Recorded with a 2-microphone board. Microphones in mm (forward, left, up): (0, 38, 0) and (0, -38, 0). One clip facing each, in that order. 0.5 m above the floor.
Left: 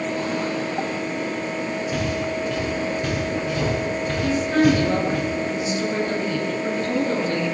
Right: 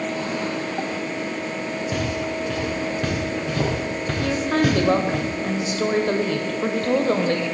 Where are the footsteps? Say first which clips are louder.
Even; 75° right (ahead or behind), 8.5 m.